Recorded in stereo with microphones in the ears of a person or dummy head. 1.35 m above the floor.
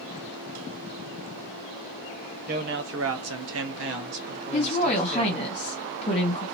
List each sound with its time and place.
2.5 s a man speaking: 40° right (ahead or behind), 0.8 m; by 5.4 s 45° right (ahead or behind), 1.8 m
4.5 s a woman speaking: 25° left (ahead or behind), 1.4 m